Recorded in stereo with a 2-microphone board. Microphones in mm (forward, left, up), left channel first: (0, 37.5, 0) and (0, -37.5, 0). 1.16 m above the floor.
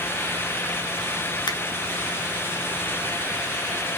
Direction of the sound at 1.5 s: 70° left (ahead or behind).